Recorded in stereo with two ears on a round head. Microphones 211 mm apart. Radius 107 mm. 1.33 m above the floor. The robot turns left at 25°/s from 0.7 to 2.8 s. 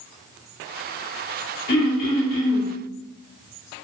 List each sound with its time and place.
1.7 s throat clearing: 60° left (ahead or behind), 1.9 m; by 2.7 s 65° left (ahead or behind), 1.9 m